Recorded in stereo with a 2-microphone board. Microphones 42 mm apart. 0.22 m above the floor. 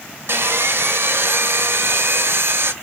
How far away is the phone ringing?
No phone ringing in this recording.